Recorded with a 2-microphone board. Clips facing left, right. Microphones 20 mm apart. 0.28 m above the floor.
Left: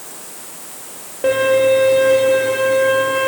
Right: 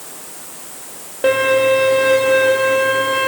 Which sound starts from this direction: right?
A violin, at 1.2 s.